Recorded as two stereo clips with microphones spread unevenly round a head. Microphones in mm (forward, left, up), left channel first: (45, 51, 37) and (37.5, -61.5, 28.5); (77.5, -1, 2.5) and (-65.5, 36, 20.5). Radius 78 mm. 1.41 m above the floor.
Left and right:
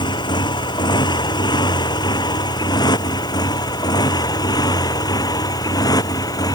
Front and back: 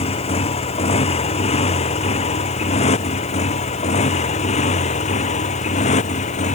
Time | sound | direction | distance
0.0 | a motorcycle | 35° left | ?